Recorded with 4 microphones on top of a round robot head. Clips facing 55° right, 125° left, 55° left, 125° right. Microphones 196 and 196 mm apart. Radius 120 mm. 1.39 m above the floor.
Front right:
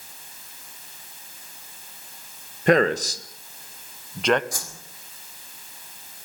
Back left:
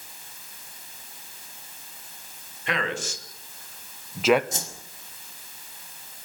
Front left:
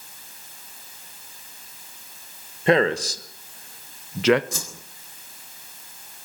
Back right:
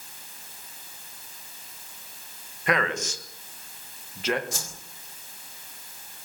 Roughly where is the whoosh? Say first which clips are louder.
Back left 2 dB, front left 3 dB; ahead left.